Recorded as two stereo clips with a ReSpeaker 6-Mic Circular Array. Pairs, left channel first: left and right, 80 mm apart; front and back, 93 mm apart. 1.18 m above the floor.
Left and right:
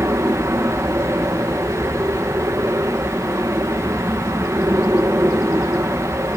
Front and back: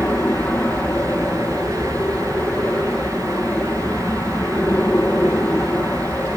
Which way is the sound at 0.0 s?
60° right.